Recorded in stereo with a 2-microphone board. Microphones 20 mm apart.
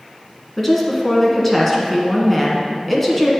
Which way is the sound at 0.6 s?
10° left (ahead or behind).